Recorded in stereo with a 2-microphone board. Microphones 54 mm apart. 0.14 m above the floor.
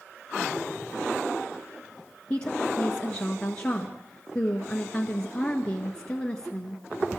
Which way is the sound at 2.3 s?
20° left (ahead or behind).